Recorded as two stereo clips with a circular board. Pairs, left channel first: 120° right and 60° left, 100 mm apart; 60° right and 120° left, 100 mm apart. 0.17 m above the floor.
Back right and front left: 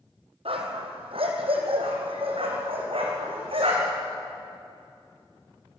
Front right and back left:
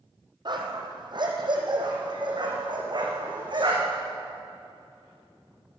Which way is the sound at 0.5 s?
80° left.